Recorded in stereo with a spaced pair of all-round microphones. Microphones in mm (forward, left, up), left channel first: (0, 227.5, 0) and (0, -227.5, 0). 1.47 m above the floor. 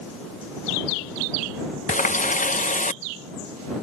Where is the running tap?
20° left (ahead or behind).